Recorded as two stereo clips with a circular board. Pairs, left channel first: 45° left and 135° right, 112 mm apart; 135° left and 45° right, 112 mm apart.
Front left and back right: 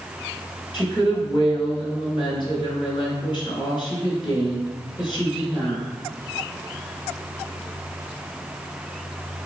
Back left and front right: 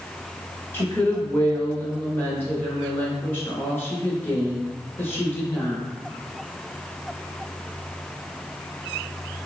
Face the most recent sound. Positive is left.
turn(degrees=70)